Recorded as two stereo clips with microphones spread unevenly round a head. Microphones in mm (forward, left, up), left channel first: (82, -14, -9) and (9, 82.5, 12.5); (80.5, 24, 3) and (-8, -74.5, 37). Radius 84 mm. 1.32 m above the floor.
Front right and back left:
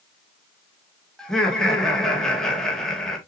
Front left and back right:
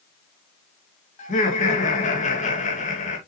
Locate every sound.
1.2 s laughter: 30° left, 2 m